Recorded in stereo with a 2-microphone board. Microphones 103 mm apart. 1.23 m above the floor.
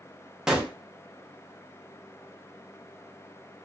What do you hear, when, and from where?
0.5 s a gunshot: 5° right (ahead or behind), 0.7 m